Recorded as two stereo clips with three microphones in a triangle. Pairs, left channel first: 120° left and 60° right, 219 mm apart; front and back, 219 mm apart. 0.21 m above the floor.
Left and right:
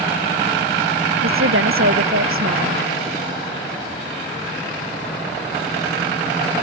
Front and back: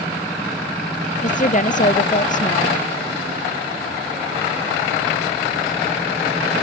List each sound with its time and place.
1.2 s a woman speaking: 50° right